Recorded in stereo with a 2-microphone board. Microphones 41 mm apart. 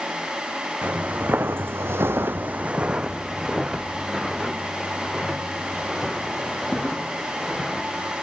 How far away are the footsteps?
About 1.1 m.